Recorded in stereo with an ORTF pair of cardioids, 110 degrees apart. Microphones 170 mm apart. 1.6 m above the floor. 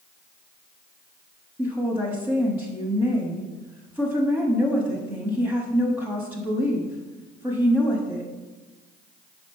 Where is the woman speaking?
10° right, 1.0 m.